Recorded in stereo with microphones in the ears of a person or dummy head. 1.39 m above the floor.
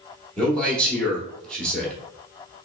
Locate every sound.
0.4 s a man speaking: 5° left (ahead or behind), 1.2 m